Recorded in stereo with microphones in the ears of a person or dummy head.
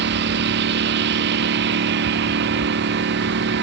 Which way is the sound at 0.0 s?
60° right (ahead or behind).